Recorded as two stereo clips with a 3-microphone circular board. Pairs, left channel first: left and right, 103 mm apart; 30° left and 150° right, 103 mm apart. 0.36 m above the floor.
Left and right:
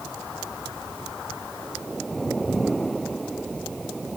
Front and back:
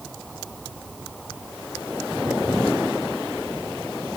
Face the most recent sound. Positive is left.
No sound to turn to.